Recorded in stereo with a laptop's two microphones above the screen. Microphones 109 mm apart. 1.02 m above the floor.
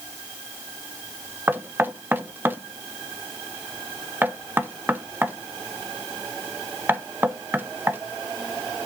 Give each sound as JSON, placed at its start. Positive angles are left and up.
{"t": 1.5, "sound": "knocking", "side_deg": -15, "distance_m": 1.2}